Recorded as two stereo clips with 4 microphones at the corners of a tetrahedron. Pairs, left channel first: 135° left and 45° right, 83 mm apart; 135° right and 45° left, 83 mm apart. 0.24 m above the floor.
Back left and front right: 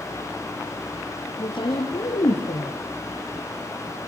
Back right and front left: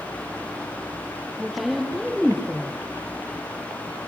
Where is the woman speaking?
140° left, 7.5 m.